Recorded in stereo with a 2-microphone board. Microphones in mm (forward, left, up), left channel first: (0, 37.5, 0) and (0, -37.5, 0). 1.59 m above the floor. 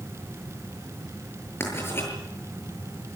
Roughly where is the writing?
Left.